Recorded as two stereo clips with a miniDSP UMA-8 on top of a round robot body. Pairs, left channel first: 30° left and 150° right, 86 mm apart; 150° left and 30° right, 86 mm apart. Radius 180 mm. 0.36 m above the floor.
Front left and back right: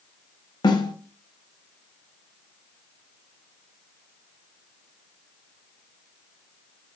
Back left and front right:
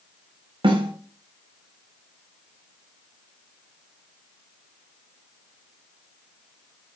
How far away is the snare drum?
About 1.1 m.